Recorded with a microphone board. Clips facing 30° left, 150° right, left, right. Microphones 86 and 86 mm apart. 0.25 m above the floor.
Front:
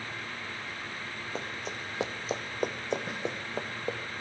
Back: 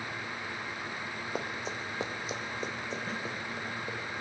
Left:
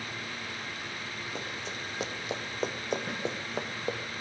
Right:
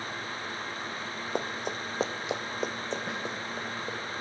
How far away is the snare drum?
About 1.8 m.